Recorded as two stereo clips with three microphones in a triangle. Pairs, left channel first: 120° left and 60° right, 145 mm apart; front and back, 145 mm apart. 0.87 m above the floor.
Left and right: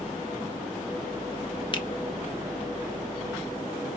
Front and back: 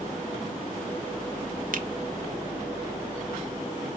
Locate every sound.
1.7 s a finger snap: 175° left, 0.7 m